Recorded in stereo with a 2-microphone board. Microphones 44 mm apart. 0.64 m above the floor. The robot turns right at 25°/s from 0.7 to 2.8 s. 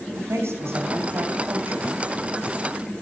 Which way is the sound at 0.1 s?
100° right.